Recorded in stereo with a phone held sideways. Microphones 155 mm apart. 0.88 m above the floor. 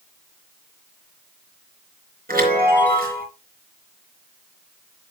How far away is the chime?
About 4 m.